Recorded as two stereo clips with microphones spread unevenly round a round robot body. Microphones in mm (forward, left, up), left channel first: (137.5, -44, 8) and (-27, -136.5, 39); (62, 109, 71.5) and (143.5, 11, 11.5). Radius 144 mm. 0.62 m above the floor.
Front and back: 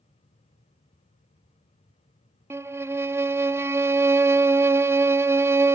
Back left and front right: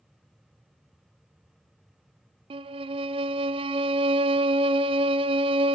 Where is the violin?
70° right, 0.8 m.